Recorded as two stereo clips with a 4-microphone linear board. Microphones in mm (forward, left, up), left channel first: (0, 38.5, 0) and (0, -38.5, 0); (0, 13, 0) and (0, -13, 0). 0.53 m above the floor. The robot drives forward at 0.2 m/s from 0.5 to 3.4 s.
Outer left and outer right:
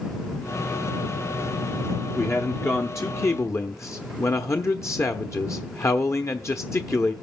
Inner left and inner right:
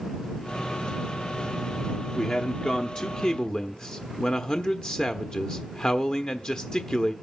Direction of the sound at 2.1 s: 35° left (ahead or behind).